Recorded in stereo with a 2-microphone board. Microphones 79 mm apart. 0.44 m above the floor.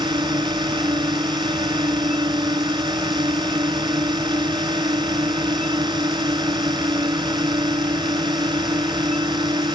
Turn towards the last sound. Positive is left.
turn(degrees=-70)  # may be behind; listen again after turning